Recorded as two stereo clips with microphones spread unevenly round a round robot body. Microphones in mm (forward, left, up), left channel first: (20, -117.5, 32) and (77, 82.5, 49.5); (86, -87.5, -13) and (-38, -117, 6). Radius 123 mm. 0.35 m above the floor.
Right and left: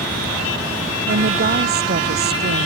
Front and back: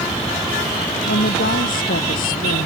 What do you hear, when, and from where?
1.1 s a woman speaking: 35° left